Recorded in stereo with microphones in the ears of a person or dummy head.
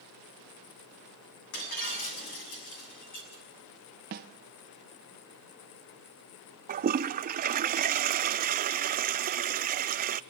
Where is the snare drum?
50° right (ahead or behind), 0.8 m.